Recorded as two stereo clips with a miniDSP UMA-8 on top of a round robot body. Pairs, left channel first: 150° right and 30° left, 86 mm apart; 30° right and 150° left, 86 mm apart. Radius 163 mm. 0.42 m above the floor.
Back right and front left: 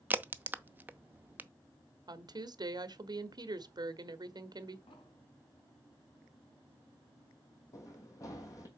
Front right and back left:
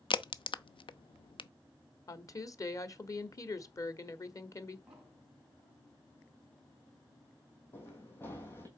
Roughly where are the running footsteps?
Right.